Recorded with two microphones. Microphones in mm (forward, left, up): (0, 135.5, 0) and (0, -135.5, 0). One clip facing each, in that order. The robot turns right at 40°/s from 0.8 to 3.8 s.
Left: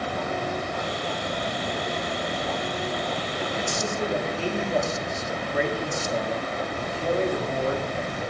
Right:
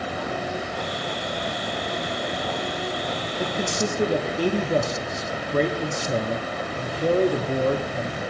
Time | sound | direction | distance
3.4 | a man speaking | 40° right (ahead or behind) | 0.8 m